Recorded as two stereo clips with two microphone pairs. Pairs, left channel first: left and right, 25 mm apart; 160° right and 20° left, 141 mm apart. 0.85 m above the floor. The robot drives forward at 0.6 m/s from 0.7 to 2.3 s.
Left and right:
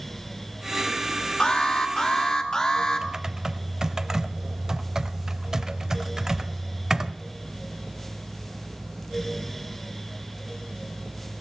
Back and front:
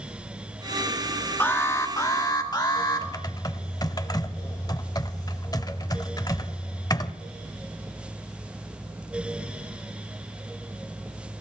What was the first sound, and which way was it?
An alarm, 130° left.